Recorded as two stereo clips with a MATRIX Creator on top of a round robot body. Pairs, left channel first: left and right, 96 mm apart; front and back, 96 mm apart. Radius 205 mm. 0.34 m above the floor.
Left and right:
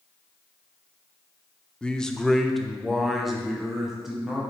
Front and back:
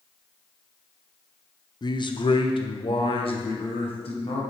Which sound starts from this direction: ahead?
A man speaking, at 1.8 s.